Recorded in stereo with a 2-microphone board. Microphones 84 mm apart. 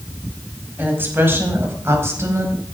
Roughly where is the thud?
I don't hear a thud.